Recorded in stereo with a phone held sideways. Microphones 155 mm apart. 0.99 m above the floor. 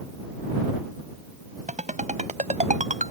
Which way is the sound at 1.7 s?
50° right (ahead or behind).